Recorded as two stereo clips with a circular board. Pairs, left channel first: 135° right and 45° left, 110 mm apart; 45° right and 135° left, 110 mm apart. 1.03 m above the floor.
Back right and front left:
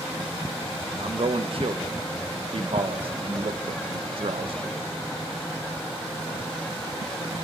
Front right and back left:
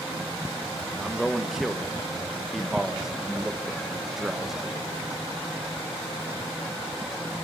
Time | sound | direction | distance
1.0 | a man speaking | 50° left | 0.9 m